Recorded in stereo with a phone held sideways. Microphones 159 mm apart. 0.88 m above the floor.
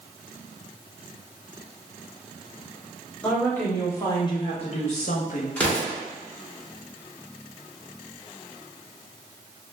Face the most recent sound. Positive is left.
turn(degrees=10)  # may be behind; listen again after turning